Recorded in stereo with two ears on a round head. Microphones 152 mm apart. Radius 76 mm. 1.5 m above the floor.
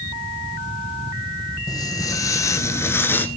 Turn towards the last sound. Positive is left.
turn(degrees=10)  # may be behind; listen again after turning